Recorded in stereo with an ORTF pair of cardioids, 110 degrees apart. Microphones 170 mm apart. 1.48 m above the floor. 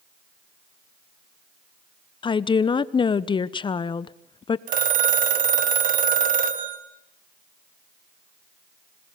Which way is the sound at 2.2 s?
30° left.